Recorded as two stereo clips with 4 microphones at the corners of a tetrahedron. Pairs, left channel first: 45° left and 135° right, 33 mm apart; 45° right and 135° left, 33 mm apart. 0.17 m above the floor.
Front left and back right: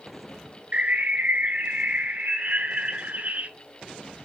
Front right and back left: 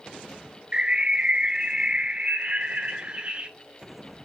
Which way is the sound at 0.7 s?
170° right.